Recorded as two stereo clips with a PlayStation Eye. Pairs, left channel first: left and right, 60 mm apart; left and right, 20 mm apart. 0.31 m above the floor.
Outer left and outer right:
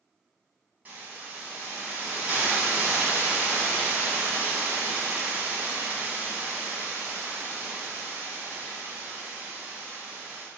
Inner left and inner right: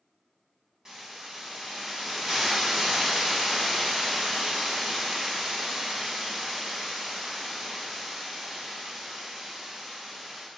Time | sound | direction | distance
0.8 | a hiss | 30° right (ahead or behind) | 1.2 m